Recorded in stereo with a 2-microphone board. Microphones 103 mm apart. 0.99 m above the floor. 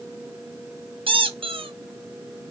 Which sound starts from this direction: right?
A squeak, at 1.1 s.